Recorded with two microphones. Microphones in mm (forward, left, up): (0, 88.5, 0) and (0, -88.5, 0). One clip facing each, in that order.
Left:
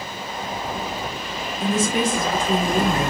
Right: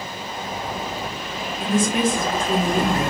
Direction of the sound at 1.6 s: Centre (ahead or behind).